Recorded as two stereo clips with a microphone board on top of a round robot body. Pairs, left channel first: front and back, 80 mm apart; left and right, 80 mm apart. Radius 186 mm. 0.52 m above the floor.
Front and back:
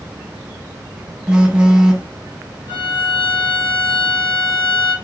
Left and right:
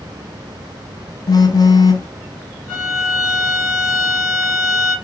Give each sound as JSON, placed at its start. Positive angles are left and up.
{"t": 1.3, "sound": "a phone buzzing", "azimuth_deg": 105, "distance_m": 1.1}
{"t": 2.7, "sound": "a violin", "azimuth_deg": 0, "distance_m": 1.4}